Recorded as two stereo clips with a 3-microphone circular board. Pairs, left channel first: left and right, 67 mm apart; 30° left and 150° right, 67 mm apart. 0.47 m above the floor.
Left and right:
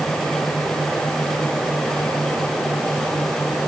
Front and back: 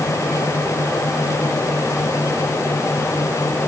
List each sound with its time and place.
Only background noise.